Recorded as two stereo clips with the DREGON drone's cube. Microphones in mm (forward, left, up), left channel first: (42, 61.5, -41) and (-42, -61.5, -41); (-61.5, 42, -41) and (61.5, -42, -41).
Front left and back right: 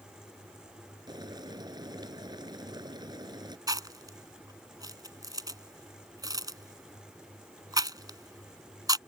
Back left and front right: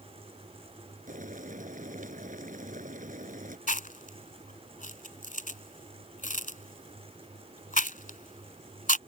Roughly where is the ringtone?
No ringtone in this recording.